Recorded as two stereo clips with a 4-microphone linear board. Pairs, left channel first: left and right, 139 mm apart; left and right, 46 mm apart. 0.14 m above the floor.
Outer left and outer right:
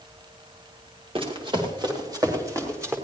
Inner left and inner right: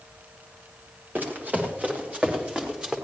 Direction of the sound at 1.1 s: 40° right (ahead or behind).